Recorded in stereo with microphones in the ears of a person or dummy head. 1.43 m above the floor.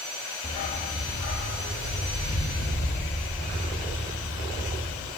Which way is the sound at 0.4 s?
25° left (ahead or behind).